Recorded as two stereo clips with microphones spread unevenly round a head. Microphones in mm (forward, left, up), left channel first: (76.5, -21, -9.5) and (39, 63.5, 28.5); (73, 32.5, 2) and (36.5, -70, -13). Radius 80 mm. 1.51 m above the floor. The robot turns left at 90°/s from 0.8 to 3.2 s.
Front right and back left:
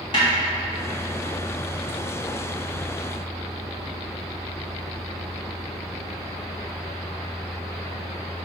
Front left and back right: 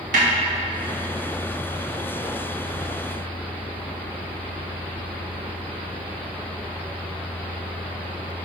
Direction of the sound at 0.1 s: 125° right.